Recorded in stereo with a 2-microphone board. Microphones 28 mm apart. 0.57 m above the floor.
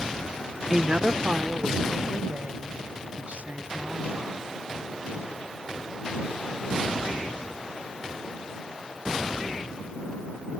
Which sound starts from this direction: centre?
A woman speaking, at 0.7 s.